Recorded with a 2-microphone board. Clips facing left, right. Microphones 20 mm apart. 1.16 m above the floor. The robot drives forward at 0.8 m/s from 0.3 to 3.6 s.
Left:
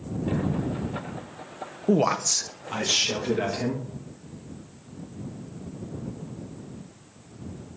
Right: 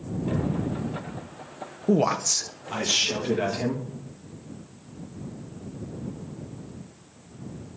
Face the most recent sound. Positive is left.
turn(degrees=5)  # may be behind; listen again after turning